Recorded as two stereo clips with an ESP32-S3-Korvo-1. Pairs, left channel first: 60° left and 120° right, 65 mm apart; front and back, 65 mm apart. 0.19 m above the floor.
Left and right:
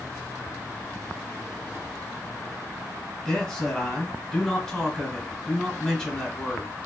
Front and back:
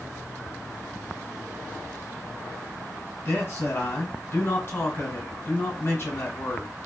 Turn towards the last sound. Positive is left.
turn(degrees=-20)